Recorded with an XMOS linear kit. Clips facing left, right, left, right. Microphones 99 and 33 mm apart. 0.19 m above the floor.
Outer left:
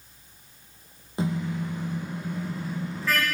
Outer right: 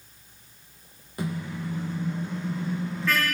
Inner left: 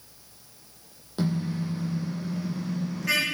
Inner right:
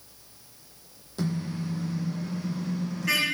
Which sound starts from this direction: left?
A car horn, at 1.2 s.